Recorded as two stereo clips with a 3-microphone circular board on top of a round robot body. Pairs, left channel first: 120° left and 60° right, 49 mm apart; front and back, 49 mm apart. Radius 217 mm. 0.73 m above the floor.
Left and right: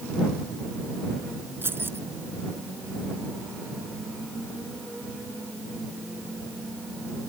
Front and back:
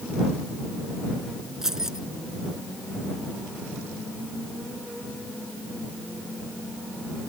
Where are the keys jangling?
100° right.